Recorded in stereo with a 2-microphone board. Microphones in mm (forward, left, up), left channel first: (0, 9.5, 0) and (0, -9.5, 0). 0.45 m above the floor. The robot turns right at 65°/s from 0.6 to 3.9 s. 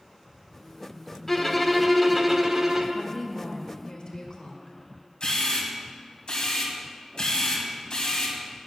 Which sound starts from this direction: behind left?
A violin, at 1.3 s.